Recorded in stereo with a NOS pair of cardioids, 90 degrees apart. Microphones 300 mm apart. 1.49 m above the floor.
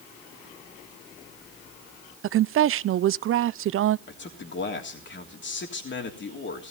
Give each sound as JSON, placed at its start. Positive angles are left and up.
{"t": 2.2, "sound": "a woman speaking", "azimuth_deg": -50, "distance_m": 0.5}
{"t": 4.1, "sound": "a man speaking", "azimuth_deg": 40, "distance_m": 3.0}